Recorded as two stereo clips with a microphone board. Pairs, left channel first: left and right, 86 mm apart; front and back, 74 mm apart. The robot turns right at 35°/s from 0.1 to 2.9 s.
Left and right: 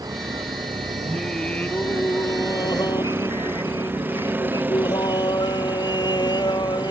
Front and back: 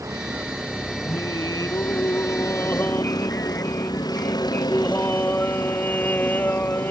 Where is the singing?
Straight ahead; by 6.9 s 65° left.